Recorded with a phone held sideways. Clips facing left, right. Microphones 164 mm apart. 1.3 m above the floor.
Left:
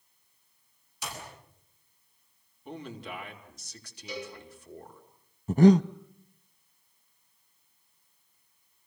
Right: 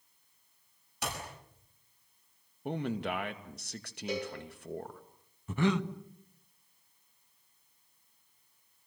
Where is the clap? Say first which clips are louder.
Right 2 dB; 55° right (ahead or behind), 9 m.